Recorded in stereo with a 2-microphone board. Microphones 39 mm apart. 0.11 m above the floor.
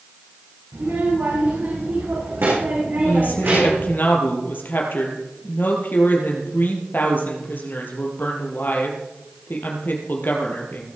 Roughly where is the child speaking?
Right.